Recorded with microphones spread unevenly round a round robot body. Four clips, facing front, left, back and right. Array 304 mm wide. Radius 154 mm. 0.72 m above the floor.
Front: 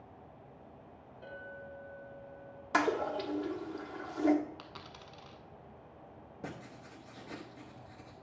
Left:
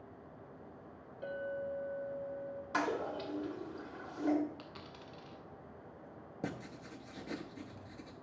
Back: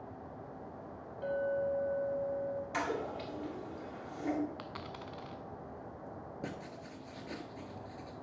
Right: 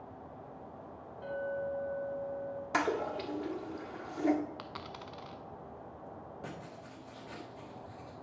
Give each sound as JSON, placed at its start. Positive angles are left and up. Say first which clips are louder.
{"t": 1.2, "sound": "a clink", "louder": "right 3 dB, back 15 dB", "azimuth_deg": 150, "distance_m": 4.0}
{"t": 2.7, "sound": "a toilet flushing", "louder": "right 3 dB, front 10 dB", "azimuth_deg": -45, "distance_m": 1.6}
{"t": 4.6, "sound": "a dropped coin", "louder": "right 6 dB, back 6 dB", "azimuth_deg": -120, "distance_m": 0.6}
{"t": 6.4, "sound": "writing", "louder": "left 2 dB, even", "azimuth_deg": 115, "distance_m": 1.1}